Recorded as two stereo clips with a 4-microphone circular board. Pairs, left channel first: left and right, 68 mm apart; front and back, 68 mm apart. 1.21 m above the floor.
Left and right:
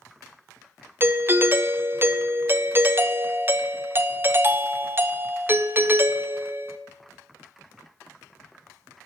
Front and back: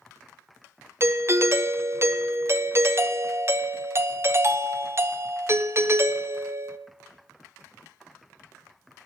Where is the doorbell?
140° right, 0.6 m.